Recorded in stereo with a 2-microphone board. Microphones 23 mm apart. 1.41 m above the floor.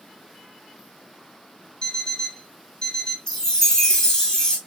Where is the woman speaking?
No woman speaking in this recording.